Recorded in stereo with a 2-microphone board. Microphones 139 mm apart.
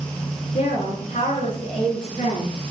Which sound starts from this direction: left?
A woman speaking, at 0.5 s.